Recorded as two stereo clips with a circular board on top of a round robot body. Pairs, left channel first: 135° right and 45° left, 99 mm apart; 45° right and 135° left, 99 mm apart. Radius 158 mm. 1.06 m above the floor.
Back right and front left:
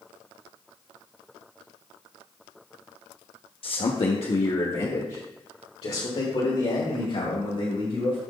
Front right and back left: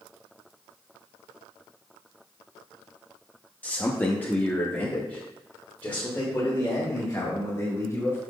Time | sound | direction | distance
3.6 | a man speaking | 120° right | 0.9 m